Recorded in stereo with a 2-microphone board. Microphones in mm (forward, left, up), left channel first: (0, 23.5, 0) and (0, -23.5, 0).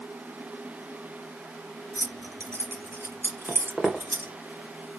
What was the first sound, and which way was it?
Keys jangling, 75° right (ahead or behind).